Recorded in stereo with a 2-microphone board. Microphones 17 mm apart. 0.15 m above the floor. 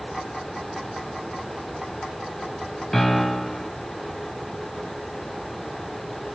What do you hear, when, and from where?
2.9 s a piano: 15° left (ahead or behind), 1.5 m